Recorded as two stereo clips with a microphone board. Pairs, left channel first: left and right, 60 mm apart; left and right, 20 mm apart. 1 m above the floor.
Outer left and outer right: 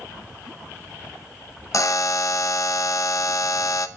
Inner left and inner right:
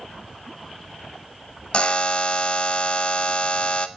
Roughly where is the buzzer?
Left.